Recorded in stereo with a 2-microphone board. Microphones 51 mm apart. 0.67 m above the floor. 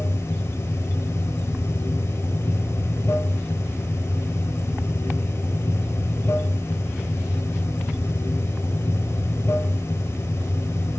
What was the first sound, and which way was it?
Running water, 65° left (ahead or behind).